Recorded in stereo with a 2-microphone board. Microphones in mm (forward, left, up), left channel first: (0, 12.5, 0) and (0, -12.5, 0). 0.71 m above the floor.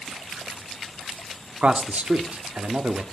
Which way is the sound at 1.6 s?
65° right (ahead or behind).